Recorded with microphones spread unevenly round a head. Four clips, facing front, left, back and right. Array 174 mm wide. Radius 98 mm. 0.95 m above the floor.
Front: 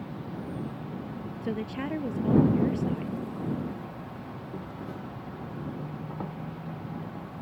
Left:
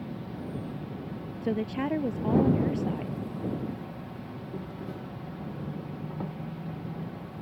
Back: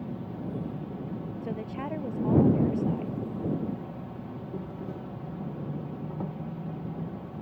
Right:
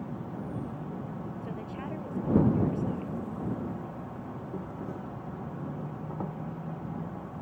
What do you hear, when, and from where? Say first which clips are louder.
0.0 s an insect: even, back 1 dB; 175° left
1.4 s a woman speaking: left 8 dB, front 5 dB; 90° left